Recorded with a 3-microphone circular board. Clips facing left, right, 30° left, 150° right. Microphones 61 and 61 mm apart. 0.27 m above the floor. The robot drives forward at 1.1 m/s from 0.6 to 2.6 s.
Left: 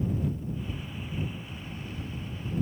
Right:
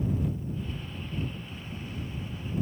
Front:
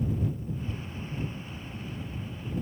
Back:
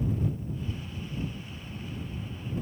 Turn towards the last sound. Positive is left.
No sound to turn to.